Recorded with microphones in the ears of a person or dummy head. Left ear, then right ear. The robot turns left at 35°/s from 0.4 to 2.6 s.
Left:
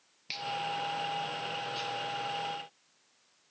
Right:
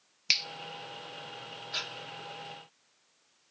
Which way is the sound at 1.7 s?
65° right (ahead or behind).